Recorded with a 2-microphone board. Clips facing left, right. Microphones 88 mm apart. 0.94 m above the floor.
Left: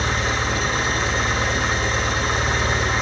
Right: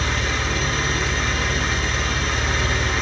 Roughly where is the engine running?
Left.